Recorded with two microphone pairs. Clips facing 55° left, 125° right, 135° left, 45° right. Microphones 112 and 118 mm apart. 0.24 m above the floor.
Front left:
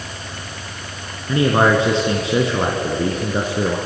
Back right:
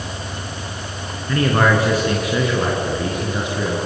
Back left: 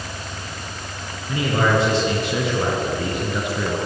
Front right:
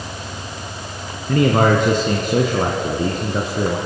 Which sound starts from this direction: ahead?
A man speaking, at 1.3 s.